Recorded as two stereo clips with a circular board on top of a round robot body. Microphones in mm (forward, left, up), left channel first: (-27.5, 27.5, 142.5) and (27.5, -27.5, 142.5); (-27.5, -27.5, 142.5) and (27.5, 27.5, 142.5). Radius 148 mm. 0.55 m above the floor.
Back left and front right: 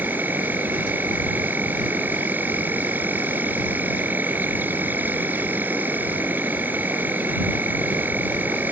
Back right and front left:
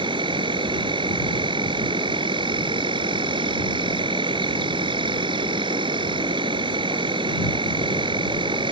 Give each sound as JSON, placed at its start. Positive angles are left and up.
{"t": 0.0, "sound": "an insect", "azimuth_deg": 25}